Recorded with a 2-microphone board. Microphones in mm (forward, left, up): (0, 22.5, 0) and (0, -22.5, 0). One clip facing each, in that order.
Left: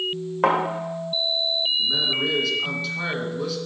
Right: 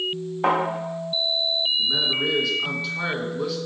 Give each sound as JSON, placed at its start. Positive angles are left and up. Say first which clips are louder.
{"t": 0.4, "sound": "a thud", "louder": "left 1 dB", "side_deg": 65, "distance_m": 2.0}
{"t": 1.8, "sound": "a man speaking", "louder": "even", "side_deg": -5, "distance_m": 1.6}